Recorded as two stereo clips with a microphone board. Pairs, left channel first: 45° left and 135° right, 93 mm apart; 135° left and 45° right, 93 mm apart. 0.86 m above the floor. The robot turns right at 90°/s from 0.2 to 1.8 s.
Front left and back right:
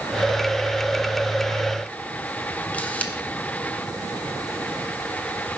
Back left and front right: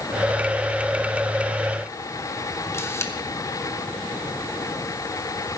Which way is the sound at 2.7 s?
105° left.